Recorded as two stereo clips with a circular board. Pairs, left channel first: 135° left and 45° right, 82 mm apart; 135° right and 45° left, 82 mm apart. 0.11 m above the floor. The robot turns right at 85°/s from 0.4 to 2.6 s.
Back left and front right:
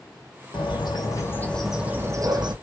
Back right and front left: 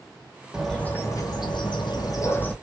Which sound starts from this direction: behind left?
A bird, at 0.5 s.